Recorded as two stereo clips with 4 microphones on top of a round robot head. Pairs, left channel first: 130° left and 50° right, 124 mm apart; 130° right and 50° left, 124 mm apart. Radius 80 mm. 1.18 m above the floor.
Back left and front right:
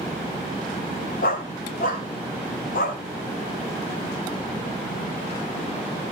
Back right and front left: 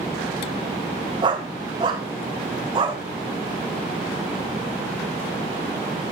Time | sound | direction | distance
1.2 | a dog barking | 110° left | 2.5 m